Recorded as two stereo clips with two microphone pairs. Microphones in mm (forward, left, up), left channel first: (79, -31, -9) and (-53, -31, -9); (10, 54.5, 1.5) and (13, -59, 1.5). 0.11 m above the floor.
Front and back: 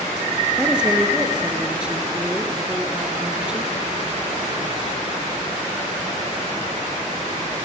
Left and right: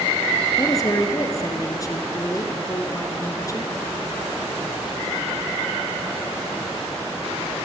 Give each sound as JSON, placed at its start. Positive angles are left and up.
{"t": 0.6, "sound": "a woman speaking", "azimuth_deg": 100, "distance_m": 1.2}